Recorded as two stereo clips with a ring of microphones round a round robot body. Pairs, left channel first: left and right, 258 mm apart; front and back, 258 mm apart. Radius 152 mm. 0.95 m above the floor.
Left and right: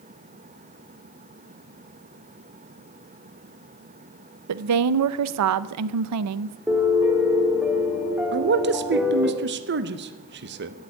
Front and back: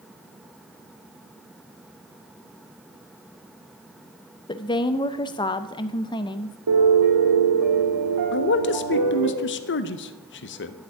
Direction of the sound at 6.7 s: 175° right.